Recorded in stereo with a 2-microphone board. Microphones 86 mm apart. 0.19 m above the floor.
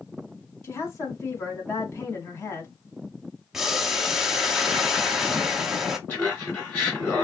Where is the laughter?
30° left (ahead or behind), 2 m.